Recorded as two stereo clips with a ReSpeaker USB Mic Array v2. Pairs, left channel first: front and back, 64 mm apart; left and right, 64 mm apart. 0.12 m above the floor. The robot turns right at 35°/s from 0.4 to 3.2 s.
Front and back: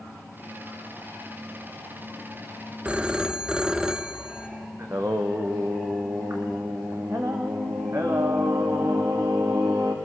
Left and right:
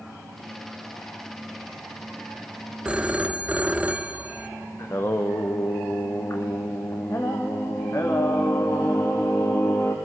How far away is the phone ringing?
About 0.7 m.